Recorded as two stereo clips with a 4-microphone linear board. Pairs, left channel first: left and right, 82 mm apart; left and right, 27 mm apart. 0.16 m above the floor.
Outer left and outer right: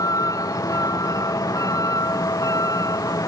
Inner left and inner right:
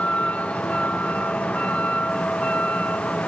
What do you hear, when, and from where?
0.0 s a vehicle: 45° left (ahead or behind)